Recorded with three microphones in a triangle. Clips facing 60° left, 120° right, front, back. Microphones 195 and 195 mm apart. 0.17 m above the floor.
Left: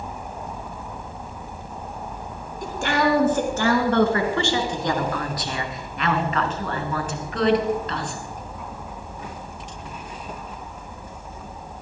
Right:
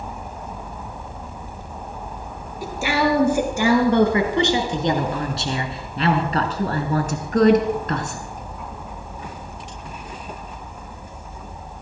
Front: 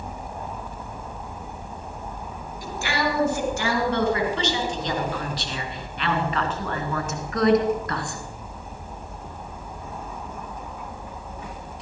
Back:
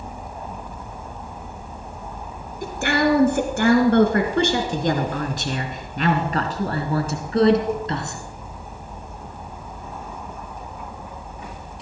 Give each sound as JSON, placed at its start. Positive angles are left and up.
{"t": 2.6, "sound": "a woman speaking", "azimuth_deg": 160, "distance_m": 3.5}